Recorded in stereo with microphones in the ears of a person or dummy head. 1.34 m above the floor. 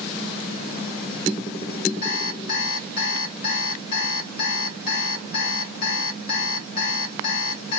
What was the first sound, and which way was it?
An alarm clock, 60° left (ahead or behind).